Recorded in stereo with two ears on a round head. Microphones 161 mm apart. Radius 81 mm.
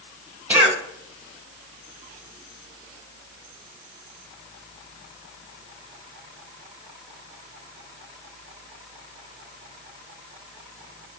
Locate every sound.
0.5 s a cough: 10° right (ahead or behind), 0.9 m